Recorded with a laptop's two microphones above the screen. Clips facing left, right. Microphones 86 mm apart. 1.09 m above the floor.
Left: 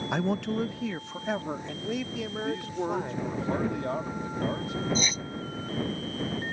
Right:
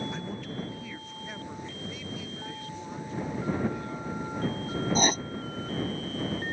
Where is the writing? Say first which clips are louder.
Right 5 dB; 55° right (ahead or behind).